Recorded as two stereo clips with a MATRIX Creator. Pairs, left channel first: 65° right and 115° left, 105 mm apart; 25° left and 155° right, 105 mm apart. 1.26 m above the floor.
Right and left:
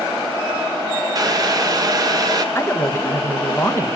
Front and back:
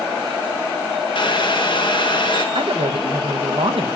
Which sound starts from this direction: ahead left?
Boiling, at 1.1 s.